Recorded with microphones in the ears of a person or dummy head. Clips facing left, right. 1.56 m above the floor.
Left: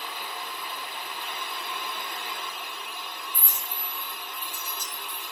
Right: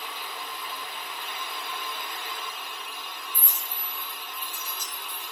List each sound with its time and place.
0.0 s a fan: 35° left (ahead or behind), 0.8 m
3.3 s a clink: 40° left (ahead or behind), 0.5 m